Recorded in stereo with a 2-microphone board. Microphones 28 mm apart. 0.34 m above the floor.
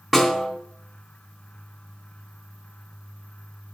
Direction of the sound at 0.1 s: Centre (ahead or behind).